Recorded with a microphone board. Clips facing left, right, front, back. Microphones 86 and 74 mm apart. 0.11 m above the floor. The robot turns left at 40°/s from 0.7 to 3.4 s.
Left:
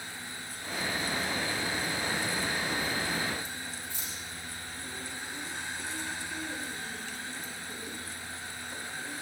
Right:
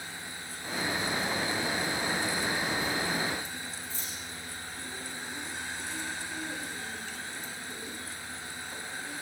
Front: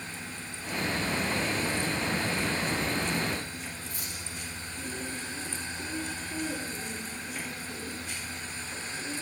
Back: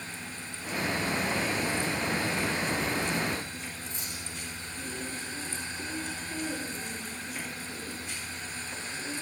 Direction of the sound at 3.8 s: 115° left.